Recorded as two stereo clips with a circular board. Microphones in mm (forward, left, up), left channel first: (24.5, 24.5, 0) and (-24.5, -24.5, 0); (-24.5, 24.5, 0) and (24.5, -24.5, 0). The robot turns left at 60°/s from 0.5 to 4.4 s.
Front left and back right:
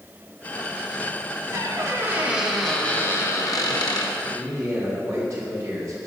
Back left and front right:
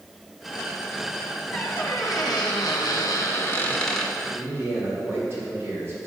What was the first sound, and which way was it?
A squeak, 160° right.